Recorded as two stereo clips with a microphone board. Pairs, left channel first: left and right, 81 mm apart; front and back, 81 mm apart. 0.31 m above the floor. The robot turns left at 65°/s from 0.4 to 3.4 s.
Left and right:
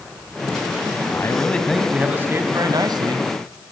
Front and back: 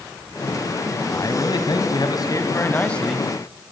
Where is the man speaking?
45° left, 2.5 m; by 3.3 s 100° right, 2.5 m.